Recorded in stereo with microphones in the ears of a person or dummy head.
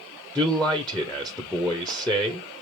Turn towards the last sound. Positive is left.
turn(degrees=0)  # may be behind; listen again after turning